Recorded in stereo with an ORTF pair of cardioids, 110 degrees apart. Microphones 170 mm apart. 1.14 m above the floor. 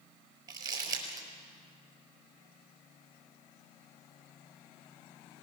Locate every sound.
0.5 s crumpling: 25° right, 5 m